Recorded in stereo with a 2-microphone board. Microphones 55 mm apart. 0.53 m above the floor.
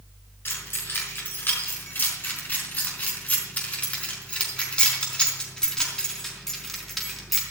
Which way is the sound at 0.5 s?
45° left (ahead or behind).